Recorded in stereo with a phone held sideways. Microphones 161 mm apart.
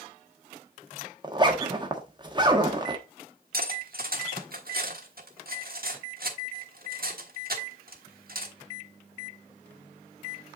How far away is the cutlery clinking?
About 1.3 m.